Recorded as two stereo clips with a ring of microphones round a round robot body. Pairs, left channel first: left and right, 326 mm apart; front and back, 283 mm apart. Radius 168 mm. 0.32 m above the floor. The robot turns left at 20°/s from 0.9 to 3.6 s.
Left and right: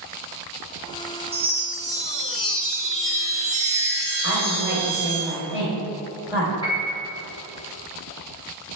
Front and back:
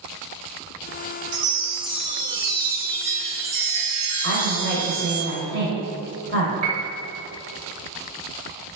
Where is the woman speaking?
170° right, 1.5 m.